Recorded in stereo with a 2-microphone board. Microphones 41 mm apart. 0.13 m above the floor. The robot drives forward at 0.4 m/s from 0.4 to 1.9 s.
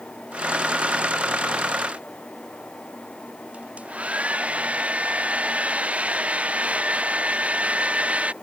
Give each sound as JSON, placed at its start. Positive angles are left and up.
{"t": 3.5, "sound": "a hair dryer", "side_deg": -35}